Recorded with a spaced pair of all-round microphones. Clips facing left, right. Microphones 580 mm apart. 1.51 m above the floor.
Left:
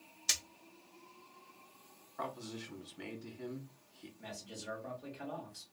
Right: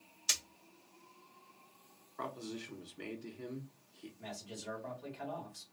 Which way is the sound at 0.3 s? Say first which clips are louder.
Right 1 dB; 10° right (ahead or behind).